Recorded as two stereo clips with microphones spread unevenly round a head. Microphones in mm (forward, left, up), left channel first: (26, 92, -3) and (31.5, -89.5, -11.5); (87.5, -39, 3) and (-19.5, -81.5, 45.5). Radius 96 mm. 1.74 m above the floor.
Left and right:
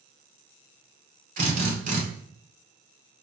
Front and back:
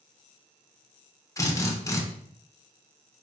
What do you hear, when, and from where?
1.4 s a drill: 50° right, 2.5 m